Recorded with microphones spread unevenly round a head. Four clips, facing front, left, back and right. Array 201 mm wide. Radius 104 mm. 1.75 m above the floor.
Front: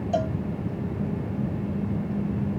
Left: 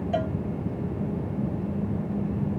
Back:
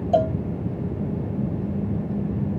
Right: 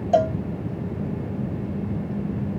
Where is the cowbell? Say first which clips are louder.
Right 10 dB, back 7 dB; 140° right.